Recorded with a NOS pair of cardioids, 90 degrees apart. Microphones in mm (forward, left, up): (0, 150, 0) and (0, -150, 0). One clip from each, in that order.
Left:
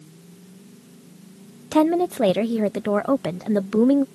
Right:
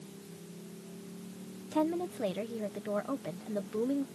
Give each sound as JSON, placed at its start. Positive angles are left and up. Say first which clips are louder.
{"t": 1.7, "sound": "a woman speaking", "louder": "left 13 dB", "azimuth_deg": 70}